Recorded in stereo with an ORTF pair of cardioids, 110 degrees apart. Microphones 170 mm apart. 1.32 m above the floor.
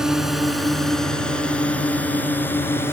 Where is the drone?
Straight ahead; by 2.9 s 15° left.